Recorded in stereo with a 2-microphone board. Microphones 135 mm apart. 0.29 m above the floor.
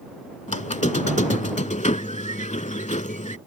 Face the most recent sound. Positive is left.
turn(degrees=65)  # may be behind; listen again after turning